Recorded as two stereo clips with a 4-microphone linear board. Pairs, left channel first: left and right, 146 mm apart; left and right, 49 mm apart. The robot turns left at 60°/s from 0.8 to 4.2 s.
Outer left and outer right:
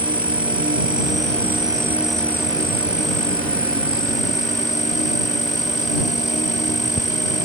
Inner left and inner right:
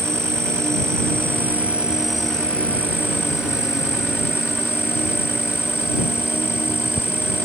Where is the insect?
100° right; by 7.5 s 55° left.